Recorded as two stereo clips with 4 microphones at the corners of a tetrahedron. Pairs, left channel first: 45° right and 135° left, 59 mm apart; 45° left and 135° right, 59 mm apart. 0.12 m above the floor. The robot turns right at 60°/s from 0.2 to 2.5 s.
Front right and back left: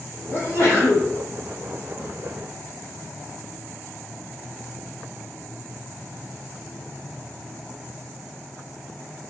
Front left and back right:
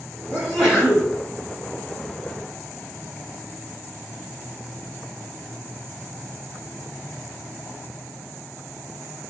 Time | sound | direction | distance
0.3 | a sneeze | 55° right | 1.1 m